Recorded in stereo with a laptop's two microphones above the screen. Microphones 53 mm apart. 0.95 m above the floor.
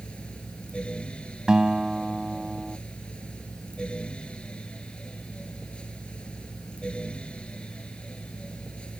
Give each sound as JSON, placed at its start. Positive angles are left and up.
{"t": 0.0, "sound": "a fan", "side_deg": 20}
{"t": 1.5, "sound": "a guitar", "side_deg": -15}